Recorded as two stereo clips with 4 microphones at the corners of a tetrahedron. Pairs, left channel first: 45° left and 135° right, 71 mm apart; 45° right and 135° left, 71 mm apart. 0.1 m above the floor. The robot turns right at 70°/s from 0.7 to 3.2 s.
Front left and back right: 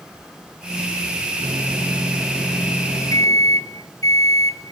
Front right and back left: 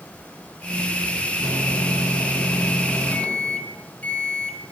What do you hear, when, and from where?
1.4 s a microwave: 100° right, 2 m; by 4.6 s 25° left, 2 m